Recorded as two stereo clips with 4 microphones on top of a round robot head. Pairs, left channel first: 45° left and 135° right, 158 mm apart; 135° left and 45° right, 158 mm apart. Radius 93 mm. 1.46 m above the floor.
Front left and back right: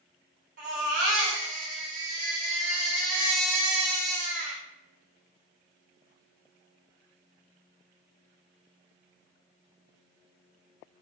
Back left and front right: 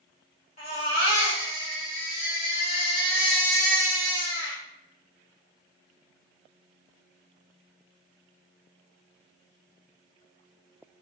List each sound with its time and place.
0.6 s a baby crying: 175° right, 1.5 m